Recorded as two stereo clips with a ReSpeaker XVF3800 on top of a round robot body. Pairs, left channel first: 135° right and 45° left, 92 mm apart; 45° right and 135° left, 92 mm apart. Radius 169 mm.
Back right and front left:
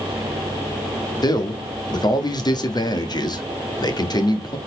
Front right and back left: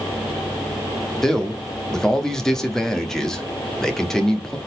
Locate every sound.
1.2 s a man speaking: 130° right, 1.7 m